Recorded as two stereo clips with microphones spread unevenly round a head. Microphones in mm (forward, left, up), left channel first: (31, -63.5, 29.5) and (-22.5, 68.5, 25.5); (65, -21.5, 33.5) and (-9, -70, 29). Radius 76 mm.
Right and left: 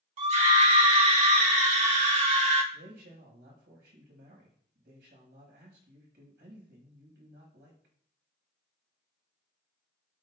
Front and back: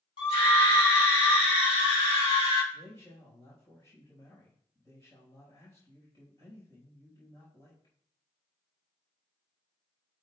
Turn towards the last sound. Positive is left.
turn(degrees=100)